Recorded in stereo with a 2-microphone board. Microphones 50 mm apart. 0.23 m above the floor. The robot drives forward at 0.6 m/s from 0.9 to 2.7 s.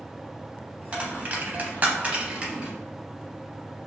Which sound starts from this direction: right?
A dropped coin, at 0.9 s.